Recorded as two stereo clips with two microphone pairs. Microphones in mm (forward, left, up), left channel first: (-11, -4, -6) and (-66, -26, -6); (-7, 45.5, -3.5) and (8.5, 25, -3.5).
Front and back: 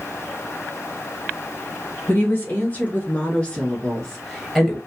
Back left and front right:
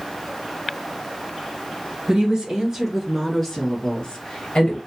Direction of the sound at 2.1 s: 20° right.